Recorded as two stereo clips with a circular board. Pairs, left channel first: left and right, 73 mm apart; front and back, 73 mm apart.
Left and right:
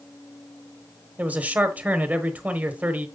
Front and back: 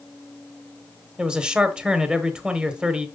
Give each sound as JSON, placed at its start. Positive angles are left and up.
{"t": 1.2, "sound": "a man speaking", "azimuth_deg": -120, "distance_m": 1.0}